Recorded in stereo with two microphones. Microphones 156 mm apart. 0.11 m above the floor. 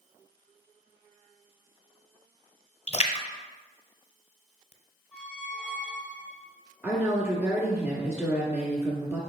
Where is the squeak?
10° right (ahead or behind), 1.6 m.